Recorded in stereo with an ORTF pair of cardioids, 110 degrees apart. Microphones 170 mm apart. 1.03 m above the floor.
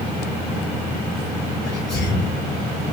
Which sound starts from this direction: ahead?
A sneeze, at 1.6 s.